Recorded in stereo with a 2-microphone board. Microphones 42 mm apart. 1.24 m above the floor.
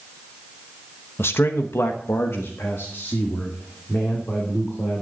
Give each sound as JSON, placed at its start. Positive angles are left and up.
{"t": 1.2, "sound": "a man speaking", "side_deg": 65, "distance_m": 1.0}